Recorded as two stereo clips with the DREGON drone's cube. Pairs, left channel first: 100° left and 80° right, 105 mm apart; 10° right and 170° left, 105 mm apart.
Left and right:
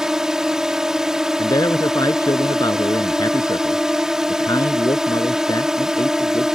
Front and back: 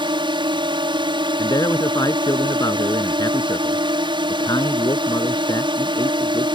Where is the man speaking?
45° left.